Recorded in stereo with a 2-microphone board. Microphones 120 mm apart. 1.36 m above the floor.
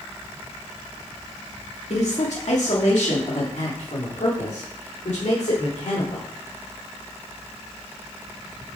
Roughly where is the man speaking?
Left.